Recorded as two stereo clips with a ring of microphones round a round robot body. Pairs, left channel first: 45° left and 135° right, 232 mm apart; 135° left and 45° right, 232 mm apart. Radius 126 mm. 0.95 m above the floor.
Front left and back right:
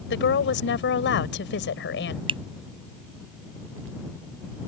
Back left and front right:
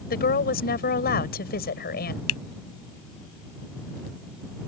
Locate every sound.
0.1 s a woman speaking: 85° left
2.3 s a finger snap: 155° left